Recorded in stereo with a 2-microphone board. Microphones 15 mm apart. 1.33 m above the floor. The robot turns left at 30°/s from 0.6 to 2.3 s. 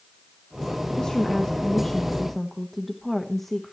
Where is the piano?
No piano in this recording.